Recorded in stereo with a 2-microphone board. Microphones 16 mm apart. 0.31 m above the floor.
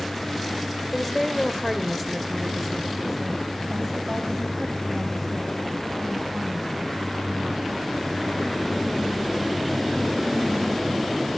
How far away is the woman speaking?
About 1.3 m.